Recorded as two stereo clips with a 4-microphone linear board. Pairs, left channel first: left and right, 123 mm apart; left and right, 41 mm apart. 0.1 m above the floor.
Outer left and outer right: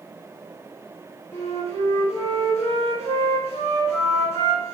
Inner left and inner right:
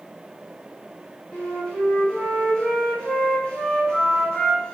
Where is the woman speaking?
No woman speaking in this recording.